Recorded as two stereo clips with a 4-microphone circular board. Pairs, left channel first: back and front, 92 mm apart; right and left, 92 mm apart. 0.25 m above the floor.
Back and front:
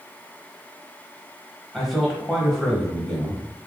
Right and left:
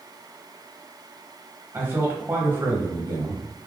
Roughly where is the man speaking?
Left.